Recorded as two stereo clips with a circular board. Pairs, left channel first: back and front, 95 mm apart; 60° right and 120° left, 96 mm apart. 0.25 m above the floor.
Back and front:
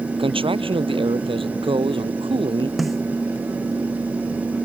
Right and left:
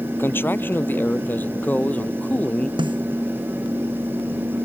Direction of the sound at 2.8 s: 90° left.